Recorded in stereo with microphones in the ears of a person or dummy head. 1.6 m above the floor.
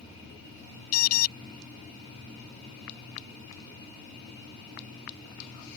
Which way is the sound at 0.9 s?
85° left.